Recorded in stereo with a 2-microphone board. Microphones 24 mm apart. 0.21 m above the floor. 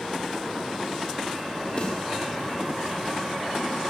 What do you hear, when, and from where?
1.8 s a snare drum: 60° left (ahead or behind), 6 m